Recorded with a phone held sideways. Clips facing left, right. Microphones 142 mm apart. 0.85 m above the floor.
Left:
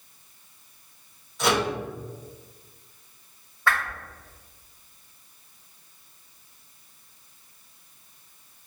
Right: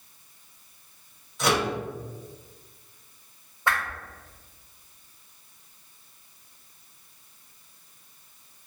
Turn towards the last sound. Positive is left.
turn(degrees=-20)  # may be behind; listen again after turning